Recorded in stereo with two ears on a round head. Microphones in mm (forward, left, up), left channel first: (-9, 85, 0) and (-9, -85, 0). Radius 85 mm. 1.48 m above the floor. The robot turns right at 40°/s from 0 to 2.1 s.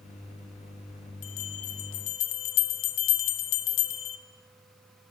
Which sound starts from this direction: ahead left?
A bell, at 1.2 s.